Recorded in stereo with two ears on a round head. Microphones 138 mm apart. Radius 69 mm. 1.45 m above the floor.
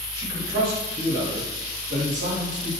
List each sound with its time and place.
0.1 s a man speaking: 70° right (ahead or behind), 1.9 m; by 2.7 s 85° right, 3.5 m